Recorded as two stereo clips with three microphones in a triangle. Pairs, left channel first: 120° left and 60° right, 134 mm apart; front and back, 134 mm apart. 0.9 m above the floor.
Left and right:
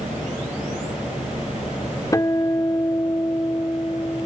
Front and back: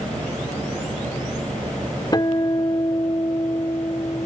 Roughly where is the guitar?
Ahead left.